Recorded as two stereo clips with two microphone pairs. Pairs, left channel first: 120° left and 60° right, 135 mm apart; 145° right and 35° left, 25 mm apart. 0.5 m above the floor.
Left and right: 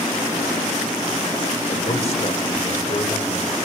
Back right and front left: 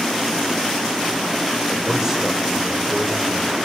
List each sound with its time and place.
1.7 s a man speaking: 95° left, 2.5 m